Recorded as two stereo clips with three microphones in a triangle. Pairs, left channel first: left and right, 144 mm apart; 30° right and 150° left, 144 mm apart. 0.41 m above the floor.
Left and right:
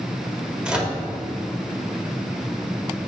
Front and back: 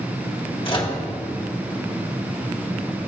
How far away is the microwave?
About 1.4 m.